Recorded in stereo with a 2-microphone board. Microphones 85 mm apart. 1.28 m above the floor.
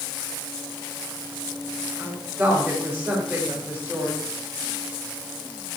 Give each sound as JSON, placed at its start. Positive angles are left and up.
{"t": 2.0, "sound": "a woman speaking", "side_deg": -15, "distance_m": 5.0}